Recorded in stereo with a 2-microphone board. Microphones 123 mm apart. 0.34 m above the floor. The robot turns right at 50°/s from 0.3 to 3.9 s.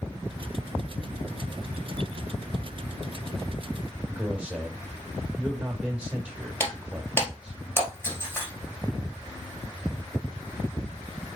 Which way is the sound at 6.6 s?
20° left (ahead or behind).